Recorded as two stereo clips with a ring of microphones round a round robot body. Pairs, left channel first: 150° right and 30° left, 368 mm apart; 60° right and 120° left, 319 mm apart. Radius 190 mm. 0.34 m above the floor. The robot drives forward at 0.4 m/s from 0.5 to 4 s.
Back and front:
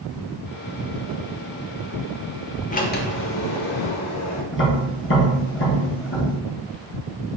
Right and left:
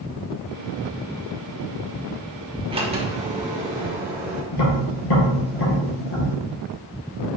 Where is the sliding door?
170° left, 0.7 m; by 4.4 s 175° left, 1.0 m.